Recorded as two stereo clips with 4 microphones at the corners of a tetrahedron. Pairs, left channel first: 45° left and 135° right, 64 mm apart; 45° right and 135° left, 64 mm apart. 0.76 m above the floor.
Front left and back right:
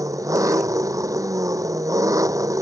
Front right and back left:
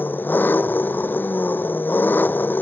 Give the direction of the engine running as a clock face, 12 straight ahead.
4 o'clock.